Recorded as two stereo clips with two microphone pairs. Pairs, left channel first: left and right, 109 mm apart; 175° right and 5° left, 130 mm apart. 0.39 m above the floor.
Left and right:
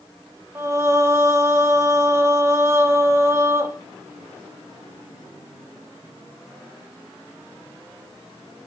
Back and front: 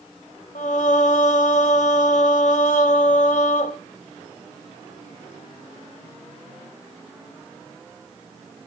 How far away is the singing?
About 0.7 m.